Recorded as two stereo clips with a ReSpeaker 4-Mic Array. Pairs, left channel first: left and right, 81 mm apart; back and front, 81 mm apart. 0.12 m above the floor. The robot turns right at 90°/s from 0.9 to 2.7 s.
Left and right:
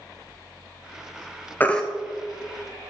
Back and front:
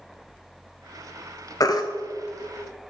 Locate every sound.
1.6 s a baby crying: 150° left, 0.8 m; by 1.8 s 170° left, 0.8 m